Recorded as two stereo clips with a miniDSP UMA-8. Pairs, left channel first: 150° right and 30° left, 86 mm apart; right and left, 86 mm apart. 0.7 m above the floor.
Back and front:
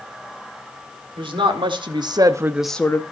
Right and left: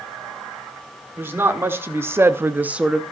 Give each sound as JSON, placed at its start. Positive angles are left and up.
{"t": 1.2, "sound": "a woman speaking", "azimuth_deg": 25, "distance_m": 1.9}